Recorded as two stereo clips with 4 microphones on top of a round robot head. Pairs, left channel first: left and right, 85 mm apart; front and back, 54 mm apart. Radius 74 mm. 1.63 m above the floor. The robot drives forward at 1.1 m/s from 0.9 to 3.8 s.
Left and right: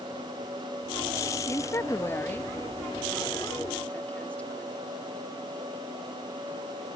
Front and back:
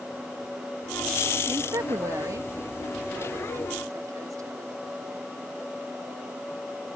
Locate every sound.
1.5 s a woman speaking: 145° left; by 4.8 s 165° left